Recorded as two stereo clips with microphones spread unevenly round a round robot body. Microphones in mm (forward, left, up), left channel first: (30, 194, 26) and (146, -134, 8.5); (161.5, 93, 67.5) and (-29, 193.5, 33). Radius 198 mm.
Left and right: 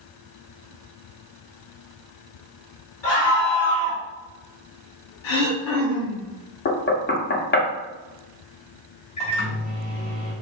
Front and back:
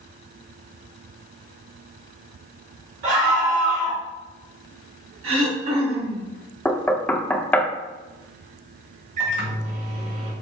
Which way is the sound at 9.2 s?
Straight behind.